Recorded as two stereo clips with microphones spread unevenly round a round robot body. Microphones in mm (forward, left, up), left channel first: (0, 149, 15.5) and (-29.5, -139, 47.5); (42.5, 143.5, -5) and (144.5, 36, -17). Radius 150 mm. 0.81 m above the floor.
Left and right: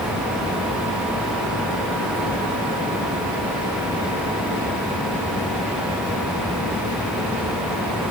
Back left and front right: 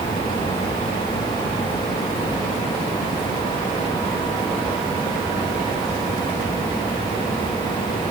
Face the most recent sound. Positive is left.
No sound to turn to.